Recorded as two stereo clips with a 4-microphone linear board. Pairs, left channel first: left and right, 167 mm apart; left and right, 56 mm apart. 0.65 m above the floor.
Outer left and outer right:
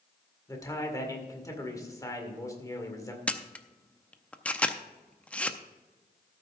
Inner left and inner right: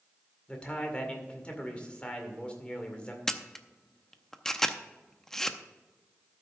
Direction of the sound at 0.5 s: 20° left (ahead or behind).